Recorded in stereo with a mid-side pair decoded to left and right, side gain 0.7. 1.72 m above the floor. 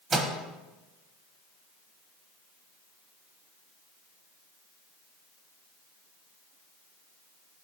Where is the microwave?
20° right, 1.8 m.